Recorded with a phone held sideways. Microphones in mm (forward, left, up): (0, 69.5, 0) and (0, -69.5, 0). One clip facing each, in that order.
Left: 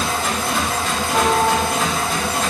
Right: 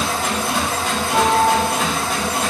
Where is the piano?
25° right (ahead or behind), 1.5 m.